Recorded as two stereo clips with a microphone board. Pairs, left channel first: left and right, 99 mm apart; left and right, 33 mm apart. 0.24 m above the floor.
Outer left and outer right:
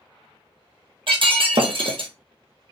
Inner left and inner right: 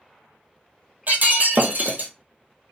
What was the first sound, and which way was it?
Breaking glass, 65° right (ahead or behind).